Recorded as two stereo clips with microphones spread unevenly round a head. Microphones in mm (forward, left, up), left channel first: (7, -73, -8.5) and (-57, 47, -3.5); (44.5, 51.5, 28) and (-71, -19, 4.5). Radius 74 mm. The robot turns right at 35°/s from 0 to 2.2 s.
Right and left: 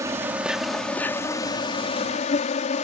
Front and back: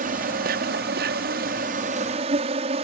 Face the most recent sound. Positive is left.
turn(degrees=-100)